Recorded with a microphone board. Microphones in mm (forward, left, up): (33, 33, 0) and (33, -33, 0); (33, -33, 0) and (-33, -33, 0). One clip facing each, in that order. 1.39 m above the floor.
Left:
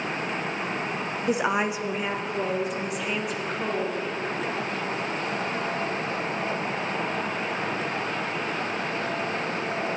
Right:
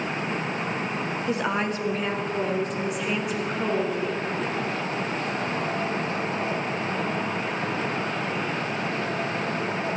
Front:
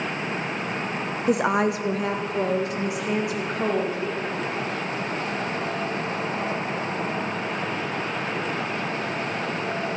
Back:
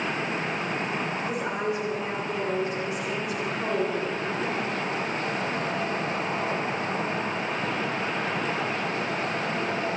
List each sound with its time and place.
1.3 s a woman speaking: 15° left, 0.9 m; by 4.0 s 5° right, 2.5 m